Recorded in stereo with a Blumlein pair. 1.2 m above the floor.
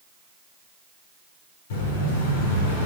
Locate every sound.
1.7 s an explosion: 55° left, 4 m